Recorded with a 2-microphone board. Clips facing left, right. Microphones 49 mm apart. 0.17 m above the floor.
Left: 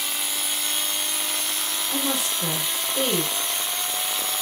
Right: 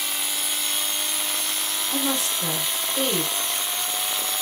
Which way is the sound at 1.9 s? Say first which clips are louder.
Right 1 dB; 10° left (ahead or behind).